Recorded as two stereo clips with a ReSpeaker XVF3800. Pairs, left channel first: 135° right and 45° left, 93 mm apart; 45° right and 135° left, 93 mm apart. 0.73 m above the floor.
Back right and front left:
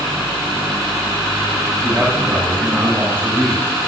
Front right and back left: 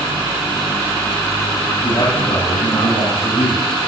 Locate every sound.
1.8 s a man speaking: 15° right, 5 m